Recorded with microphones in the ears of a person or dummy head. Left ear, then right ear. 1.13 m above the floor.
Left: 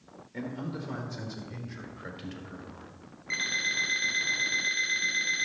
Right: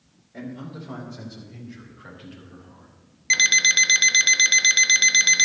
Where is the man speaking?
15° left (ahead or behind), 3 m; by 2.9 s 55° left (ahead or behind), 4 m.